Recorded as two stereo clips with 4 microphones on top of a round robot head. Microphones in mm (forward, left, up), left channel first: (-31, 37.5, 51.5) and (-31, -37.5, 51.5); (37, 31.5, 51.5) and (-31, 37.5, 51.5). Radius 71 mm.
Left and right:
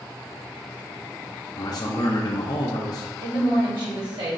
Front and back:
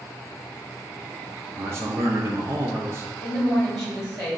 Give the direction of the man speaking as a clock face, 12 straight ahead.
8 o'clock.